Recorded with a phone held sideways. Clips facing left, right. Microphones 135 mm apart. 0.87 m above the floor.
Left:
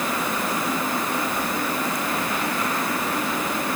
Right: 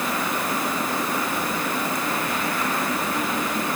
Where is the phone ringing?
No phone ringing in this recording.